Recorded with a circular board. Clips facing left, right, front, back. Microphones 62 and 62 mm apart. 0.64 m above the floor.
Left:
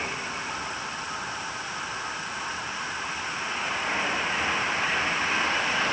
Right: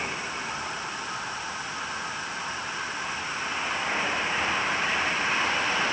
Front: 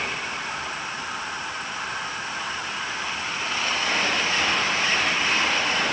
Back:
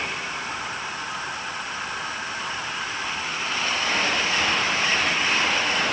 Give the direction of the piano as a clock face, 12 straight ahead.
No piano in this recording.